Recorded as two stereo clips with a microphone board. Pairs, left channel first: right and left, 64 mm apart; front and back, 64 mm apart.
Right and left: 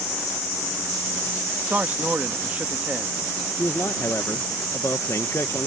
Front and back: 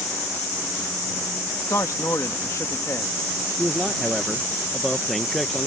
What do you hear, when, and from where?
1.7 s a man speaking: 30° left
3.6 s a man speaking: 85° right